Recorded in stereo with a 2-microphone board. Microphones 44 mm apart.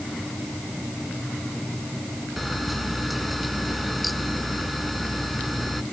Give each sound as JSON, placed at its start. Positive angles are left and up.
{"t": 2.4, "sound": "a camera shutter", "side_deg": 0}